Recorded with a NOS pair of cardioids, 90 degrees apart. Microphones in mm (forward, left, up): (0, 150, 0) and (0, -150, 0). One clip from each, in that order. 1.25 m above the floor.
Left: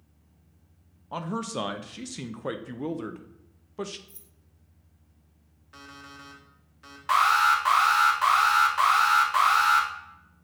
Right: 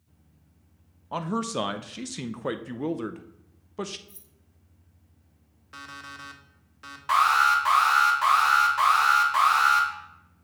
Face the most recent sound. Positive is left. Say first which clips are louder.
# right 1 dB
turn(degrees=10)